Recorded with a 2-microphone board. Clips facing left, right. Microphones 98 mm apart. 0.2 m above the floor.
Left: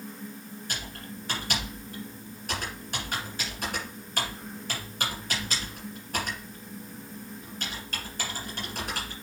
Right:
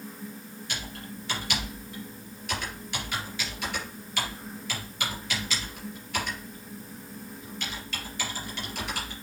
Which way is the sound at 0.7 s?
45° left (ahead or behind).